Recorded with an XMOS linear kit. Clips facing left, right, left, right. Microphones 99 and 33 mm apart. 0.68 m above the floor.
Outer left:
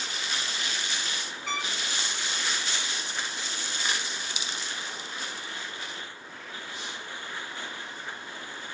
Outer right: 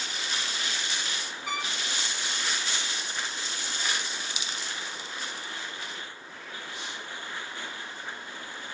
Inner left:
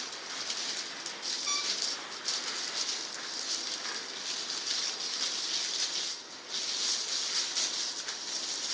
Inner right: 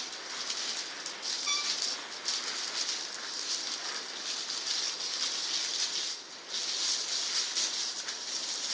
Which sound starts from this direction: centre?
A trumpet, at 1.5 s.